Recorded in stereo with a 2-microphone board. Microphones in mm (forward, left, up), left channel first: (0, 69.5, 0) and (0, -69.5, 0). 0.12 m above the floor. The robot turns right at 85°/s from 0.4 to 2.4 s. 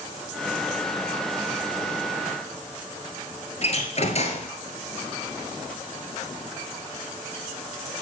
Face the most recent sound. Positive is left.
turn(degrees=50)  # may be behind; listen again after turning